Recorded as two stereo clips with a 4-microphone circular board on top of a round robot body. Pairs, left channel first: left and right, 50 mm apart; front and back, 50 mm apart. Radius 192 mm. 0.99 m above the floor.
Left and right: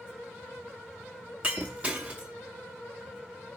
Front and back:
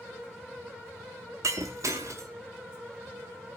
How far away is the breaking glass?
About 0.8 m.